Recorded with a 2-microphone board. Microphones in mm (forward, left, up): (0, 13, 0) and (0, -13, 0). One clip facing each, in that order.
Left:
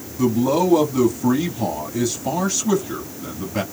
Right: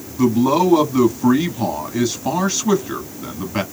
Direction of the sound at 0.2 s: 30° right (ahead or behind).